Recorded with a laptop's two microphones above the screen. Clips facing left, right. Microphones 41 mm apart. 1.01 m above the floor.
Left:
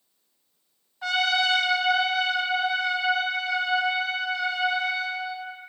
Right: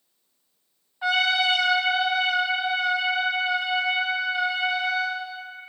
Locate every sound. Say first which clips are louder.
1.0 s a trumpet: right 2 dB; 15° right (ahead or behind), 0.8 m